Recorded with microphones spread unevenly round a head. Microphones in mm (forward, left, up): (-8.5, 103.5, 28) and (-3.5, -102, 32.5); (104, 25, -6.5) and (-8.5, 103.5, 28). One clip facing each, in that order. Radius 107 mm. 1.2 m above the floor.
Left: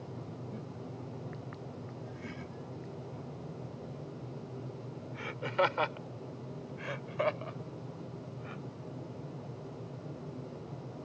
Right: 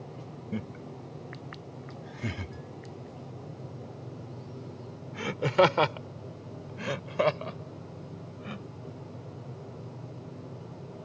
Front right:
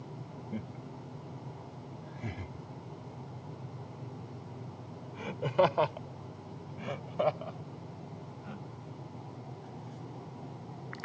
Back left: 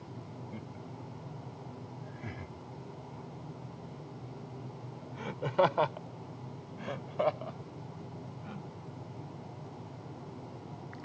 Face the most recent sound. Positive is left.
turn(degrees=-125)